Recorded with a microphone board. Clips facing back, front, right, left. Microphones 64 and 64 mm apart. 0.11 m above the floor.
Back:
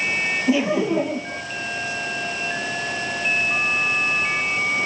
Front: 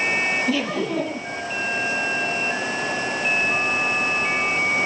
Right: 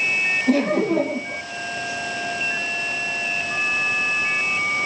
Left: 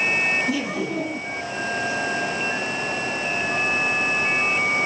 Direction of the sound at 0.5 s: 110° right.